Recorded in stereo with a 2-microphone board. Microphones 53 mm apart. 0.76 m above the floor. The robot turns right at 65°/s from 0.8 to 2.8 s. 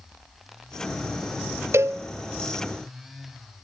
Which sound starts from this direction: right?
A cowbell, at 1.7 s.